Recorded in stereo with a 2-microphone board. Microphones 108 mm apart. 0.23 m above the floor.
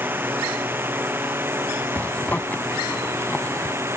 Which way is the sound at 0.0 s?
15° right (ahead or behind).